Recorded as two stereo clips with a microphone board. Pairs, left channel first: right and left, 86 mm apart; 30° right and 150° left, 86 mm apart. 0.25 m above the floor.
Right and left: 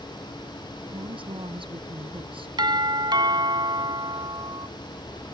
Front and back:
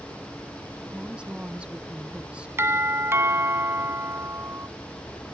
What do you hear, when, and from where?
0.9 s a woman speaking: 70° left
2.6 s a doorbell: 95° left